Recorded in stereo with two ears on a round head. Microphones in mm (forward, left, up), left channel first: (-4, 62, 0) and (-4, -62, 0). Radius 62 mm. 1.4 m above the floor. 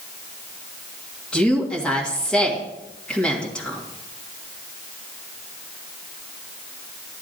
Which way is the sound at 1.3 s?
5° left (ahead or behind).